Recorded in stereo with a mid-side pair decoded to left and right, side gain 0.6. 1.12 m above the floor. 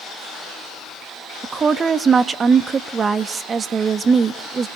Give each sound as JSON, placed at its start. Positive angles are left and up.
{"t": 1.4, "sound": "a woman speaking", "azimuth_deg": -35, "distance_m": 1.3}